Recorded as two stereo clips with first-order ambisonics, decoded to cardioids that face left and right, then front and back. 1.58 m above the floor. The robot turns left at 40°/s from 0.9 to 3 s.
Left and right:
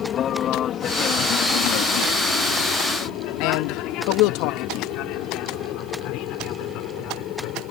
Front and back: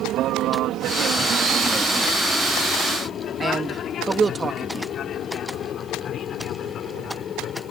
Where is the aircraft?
140° left; by 7.7 s 55° left.